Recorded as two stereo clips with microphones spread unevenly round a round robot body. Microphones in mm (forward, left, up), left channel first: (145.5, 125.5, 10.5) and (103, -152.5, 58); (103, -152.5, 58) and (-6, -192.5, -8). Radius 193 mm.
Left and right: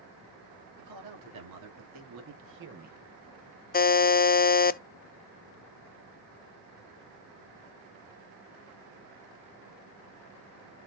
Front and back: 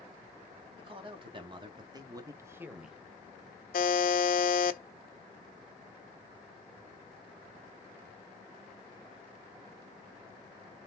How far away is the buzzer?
About 0.6 m.